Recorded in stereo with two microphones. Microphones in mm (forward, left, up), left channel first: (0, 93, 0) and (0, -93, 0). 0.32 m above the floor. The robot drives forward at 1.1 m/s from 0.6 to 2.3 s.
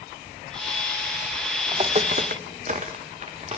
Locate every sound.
1.7 s footsteps: 25° right (ahead or behind), 0.5 m; by 3.6 s 35° right (ahead or behind), 1.8 m